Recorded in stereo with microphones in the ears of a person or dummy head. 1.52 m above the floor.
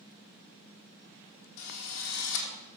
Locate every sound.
1.6 s a drill: 75° left (ahead or behind), 1.7 m